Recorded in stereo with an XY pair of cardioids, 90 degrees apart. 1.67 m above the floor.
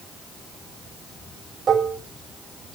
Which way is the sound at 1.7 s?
60° right.